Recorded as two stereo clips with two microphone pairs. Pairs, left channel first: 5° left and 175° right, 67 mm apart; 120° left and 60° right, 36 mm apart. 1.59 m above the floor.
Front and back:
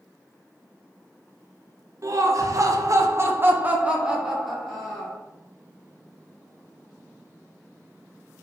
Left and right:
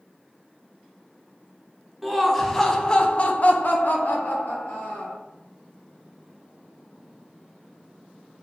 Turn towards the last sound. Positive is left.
turn(degrees=90)